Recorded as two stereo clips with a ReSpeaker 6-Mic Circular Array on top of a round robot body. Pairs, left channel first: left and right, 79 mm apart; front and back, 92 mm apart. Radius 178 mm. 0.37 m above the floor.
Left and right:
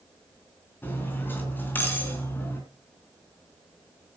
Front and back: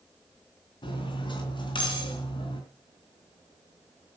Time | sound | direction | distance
0.8 | cutlery clinking | 25° left | 3.5 m